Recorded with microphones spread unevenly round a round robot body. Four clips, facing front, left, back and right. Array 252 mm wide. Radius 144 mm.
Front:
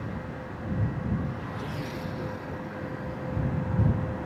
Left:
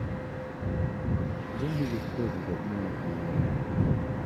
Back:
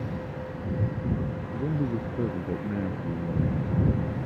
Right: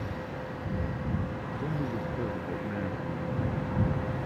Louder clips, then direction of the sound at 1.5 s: Left 3 dB, back 6 dB; 160° left.